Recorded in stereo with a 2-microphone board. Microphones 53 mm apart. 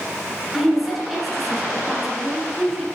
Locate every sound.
0.5 s a woman speaking: centre (ahead or behind), 2 m